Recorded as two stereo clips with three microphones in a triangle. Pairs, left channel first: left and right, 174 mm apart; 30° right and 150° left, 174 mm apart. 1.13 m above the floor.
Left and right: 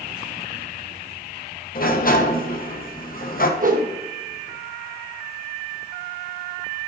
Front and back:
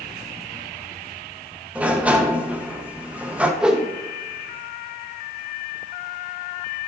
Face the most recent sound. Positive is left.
turn(degrees=-125)